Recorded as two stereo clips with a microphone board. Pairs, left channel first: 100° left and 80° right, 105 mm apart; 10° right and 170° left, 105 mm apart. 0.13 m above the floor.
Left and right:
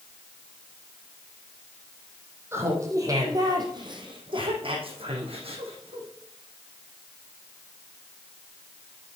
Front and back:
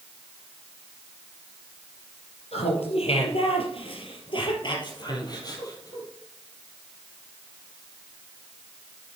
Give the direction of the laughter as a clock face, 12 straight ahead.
12 o'clock.